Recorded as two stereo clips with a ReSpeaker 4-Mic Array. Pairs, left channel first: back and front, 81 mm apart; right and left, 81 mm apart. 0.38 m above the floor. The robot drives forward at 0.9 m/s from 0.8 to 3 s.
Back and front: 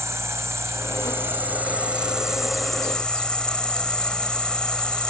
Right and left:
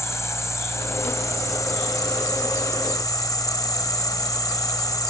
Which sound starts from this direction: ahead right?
An insect, at 0.0 s.